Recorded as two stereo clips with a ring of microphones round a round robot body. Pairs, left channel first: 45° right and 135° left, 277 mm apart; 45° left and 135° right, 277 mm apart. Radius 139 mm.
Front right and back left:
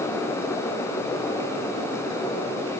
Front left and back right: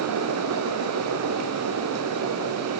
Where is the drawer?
No drawer in this recording.